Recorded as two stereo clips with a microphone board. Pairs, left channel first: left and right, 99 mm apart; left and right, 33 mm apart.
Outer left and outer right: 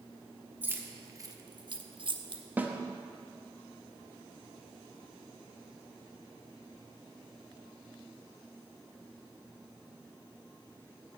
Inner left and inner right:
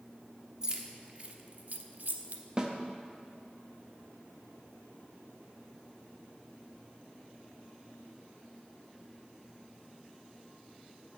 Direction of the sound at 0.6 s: 20° right (ahead or behind).